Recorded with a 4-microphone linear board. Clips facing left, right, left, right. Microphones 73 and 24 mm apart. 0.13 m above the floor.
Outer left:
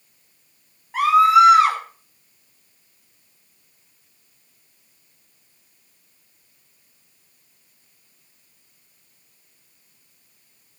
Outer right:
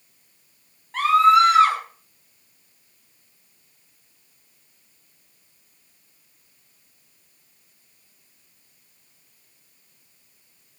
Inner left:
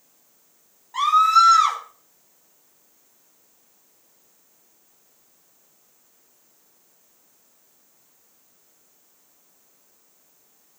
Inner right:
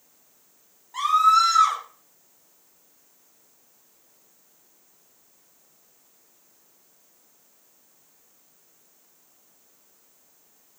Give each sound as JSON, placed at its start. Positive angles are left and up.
{"t": 0.9, "sound": "a scream", "side_deg": 10, "distance_m": 4.5}